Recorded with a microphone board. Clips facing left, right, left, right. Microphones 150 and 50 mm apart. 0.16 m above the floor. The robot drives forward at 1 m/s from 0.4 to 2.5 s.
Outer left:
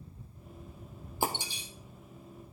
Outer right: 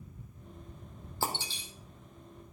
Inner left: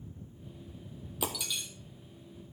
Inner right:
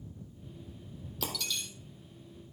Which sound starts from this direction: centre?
Breaking glass, at 1.2 s.